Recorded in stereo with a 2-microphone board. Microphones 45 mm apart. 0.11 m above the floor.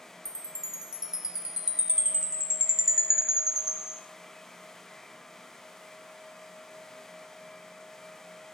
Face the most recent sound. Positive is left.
turn(degrees=-15)  # may be behind; listen again after turning